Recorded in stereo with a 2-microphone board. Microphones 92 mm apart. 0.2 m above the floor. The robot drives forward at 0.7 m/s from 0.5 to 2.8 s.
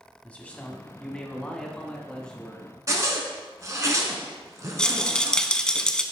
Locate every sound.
0.2 s a man speaking: 15° left (ahead or behind), 1.0 m; by 2.7 s 10° left (ahead or behind), 2 m
2.9 s a zipper: 35° right (ahead or behind), 1.0 m
4.8 s a rattle: 10° left (ahead or behind), 0.5 m